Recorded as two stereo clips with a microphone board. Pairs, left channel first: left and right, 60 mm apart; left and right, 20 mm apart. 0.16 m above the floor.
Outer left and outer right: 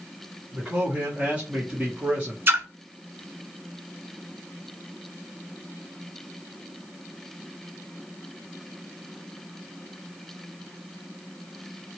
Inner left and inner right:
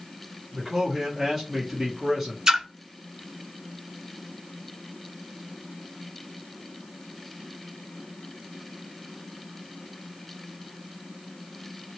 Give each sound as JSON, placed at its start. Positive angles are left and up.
{"t": 0.5, "sound": "a man speaking", "side_deg": -20, "distance_m": 1.5}
{"t": 2.5, "sound": "a splash", "side_deg": -40, "distance_m": 0.8}